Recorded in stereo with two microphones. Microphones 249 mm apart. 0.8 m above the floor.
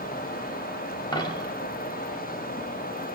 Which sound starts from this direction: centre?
A dropped coin, at 1.1 s.